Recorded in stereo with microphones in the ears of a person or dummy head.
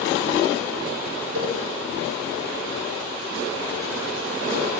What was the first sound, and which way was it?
A cowbell, 85° right.